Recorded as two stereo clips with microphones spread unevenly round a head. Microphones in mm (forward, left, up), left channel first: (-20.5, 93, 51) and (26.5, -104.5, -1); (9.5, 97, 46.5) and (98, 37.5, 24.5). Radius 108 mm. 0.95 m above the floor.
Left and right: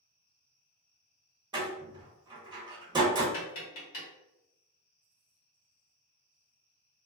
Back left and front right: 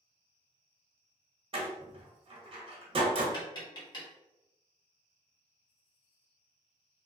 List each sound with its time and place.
1.5 s a door slam: 15° right, 1.0 m
3.3 s tapping: 110° left, 1.2 m